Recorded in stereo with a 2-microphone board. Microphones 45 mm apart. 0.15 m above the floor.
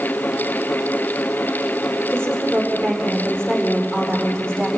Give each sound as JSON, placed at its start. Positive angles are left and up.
{"t": 2.1, "sound": "a woman speaking", "side_deg": 15, "distance_m": 8.0}